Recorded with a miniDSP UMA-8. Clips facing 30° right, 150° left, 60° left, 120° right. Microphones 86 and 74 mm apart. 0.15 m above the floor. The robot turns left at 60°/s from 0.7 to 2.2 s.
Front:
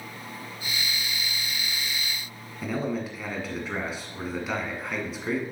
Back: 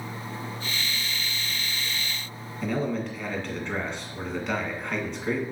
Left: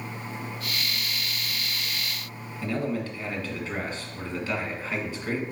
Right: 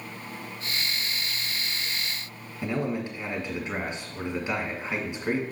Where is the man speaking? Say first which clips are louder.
Back 1 dB, even; 105° right, 1.6 m.